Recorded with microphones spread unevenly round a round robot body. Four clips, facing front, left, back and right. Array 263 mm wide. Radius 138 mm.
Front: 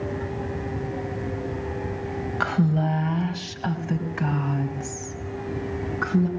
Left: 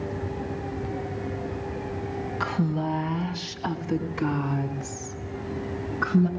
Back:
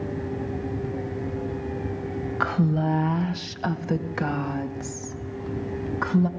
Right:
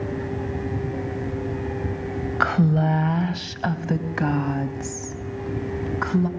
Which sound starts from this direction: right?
A woman speaking, at 2.4 s.